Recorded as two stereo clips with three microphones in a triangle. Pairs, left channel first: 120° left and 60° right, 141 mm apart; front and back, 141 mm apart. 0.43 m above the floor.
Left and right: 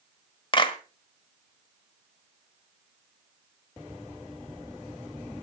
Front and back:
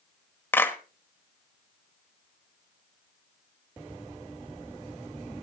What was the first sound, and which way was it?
A clap, 75° left.